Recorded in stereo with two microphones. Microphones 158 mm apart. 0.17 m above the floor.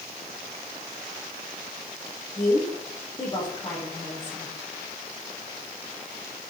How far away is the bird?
No bird in this recording.